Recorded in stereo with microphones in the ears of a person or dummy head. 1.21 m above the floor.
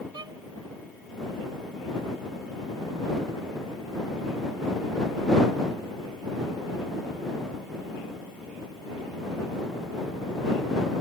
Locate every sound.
0.1 s a violin: 25° right (ahead or behind)